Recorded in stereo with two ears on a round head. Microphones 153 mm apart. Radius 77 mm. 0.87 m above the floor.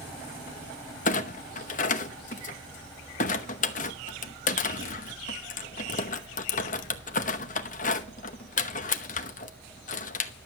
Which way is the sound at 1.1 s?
50° left (ahead or behind).